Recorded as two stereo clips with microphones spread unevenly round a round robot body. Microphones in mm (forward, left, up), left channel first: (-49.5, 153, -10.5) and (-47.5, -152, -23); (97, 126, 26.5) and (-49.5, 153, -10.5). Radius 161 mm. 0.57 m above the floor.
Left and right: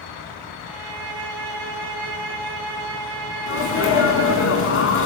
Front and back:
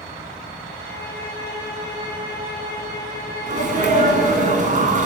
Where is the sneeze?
140° left, 5.5 m.